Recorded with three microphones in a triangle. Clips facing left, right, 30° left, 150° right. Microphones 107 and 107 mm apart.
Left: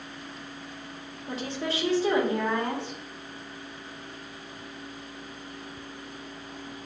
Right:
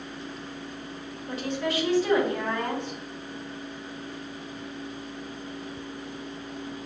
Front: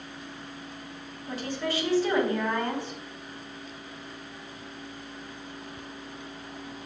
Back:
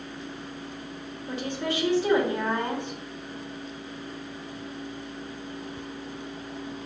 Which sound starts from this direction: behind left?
A woman speaking, at 1.3 s.